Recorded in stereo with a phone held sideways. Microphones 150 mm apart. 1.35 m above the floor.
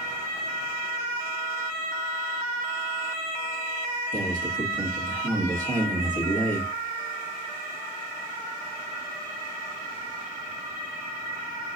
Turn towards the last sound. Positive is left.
turn(degrees=-60)  # may be behind; listen again after turning